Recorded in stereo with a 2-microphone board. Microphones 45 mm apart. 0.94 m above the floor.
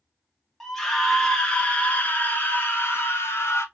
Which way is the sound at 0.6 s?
5° left (ahead or behind).